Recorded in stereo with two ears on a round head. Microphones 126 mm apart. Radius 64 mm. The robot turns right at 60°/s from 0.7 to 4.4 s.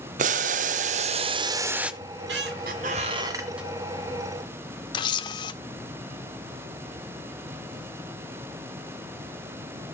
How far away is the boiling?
About 0.6 m.